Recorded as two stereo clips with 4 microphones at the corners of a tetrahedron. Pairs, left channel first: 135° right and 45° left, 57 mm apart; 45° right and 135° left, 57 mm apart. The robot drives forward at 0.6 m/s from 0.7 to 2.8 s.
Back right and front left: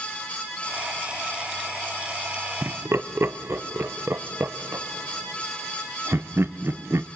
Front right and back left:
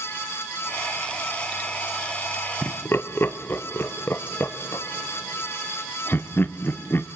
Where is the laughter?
Straight ahead, 0.8 m.